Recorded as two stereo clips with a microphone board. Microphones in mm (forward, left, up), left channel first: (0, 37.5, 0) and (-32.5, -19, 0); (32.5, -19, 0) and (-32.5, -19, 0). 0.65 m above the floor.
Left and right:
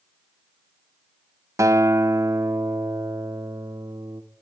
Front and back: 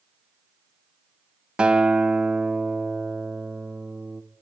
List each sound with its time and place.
1.6 s a guitar: 110° right, 1.4 m